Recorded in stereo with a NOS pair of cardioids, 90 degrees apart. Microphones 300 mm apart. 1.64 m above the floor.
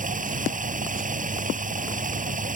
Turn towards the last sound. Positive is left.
turn(degrees=-25)